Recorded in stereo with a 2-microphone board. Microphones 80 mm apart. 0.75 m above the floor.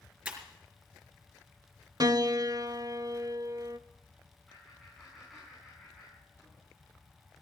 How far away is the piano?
About 0.7 m.